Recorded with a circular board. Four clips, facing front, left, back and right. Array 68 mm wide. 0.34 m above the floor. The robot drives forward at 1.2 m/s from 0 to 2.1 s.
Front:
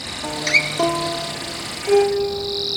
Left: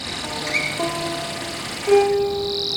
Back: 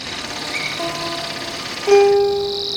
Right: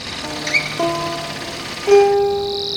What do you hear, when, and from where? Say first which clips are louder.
0.2 s a guitar: right 3 dB, front 7 dB; 20° right, 1.8 m; by 2.8 s 155° right, 1.5 m